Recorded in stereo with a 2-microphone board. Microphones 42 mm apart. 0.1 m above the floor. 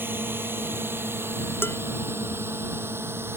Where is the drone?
55° right (ahead or behind); by 3.4 s 70° right (ahead or behind).